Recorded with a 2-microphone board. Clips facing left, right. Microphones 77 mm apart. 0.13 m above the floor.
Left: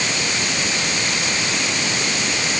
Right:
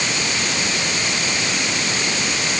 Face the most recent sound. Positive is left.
No sound to turn to.